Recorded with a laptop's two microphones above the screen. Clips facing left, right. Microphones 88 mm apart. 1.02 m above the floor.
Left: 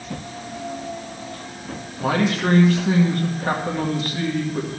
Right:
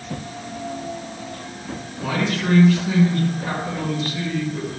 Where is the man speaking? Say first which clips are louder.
Left 3 dB; 45° left (ahead or behind), 1.7 m.